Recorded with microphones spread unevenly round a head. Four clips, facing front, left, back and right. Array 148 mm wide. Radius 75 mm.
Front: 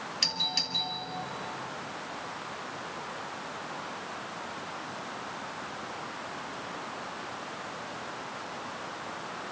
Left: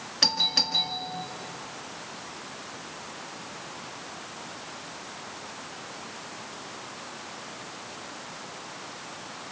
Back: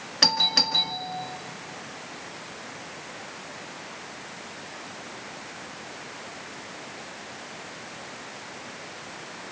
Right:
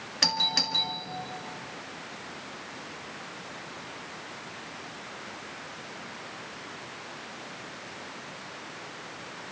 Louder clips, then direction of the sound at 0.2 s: Right 1 dB, back 10 dB; straight behind.